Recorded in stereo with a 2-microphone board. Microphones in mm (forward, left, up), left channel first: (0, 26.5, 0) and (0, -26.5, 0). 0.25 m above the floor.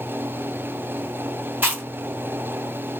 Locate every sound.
1.6 s chewing: 35° right (ahead or behind), 1.6 m